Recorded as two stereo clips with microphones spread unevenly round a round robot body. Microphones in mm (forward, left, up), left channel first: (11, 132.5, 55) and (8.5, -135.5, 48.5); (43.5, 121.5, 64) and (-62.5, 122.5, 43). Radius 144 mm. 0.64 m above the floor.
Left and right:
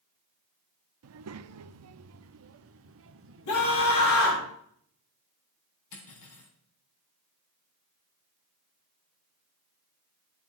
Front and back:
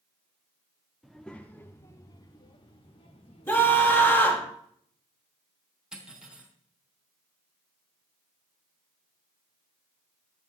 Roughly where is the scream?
Left.